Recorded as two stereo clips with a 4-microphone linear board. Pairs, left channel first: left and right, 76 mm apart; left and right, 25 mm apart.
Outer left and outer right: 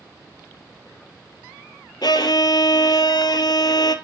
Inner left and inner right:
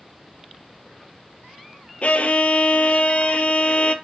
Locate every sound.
2.0 s a violin: 65° left (ahead or behind), 0.6 m